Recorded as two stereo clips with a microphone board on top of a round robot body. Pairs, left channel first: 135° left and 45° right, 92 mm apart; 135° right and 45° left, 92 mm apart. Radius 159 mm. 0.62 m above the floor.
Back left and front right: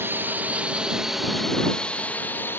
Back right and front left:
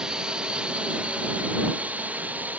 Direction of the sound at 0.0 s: 25° right.